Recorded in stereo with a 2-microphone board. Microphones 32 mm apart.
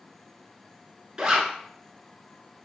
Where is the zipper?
25° right (ahead or behind), 0.9 m.